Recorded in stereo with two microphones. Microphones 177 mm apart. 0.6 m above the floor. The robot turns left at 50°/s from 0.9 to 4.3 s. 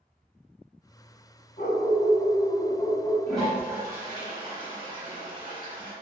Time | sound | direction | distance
1.6 | a dog barking | 105° left | 1.0 m
3.3 | a toilet flushing | 10° left | 0.9 m